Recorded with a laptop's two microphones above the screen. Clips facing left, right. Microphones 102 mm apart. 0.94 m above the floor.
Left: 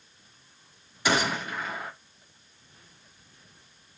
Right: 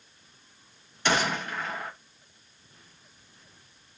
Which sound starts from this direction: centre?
A gunshot, at 1.1 s.